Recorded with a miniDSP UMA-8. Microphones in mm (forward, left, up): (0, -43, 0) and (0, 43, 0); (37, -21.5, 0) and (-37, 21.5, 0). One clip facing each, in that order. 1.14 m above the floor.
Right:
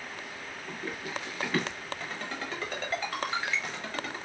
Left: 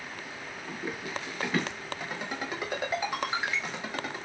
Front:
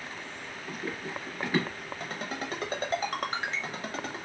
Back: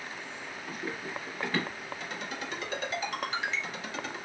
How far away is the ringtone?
About 0.8 m.